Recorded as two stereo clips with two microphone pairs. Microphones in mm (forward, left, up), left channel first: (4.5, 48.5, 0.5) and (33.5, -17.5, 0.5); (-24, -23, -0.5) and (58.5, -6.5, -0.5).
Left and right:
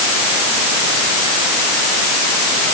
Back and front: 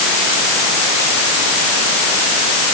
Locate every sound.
Only background noise.